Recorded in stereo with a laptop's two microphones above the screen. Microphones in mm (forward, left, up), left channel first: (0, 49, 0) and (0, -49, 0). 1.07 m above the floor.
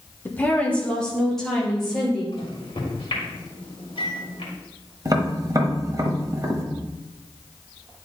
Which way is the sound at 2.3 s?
75° left (ahead or behind).